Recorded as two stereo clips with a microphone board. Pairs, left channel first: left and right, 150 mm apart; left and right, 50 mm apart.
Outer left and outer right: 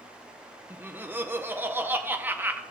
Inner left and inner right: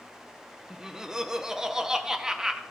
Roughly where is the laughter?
Centre.